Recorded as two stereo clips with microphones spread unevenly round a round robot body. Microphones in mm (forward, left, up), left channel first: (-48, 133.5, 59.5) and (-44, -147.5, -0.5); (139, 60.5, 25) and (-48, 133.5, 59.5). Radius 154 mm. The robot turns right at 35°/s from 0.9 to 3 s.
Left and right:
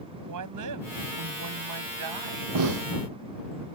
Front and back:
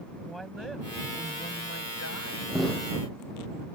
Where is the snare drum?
115° right; by 2.9 s 105° right.